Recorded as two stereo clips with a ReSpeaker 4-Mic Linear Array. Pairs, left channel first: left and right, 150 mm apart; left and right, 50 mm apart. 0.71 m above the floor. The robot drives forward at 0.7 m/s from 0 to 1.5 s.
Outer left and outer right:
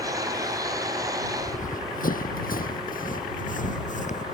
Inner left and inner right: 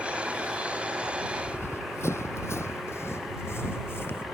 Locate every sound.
1.4 s running footsteps: 55° left (ahead or behind)